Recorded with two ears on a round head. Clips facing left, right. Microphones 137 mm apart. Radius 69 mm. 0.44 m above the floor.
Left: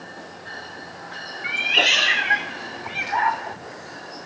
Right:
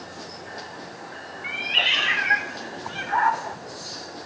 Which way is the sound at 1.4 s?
65° left (ahead or behind).